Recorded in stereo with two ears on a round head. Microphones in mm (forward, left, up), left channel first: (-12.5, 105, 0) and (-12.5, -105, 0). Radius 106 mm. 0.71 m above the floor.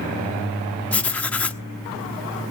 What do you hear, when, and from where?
0.9 s writing: 5° left (ahead or behind), 1.1 m